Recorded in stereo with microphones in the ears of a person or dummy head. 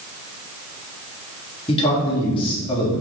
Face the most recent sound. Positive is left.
turn(degrees=35)  # may be behind; listen again after turning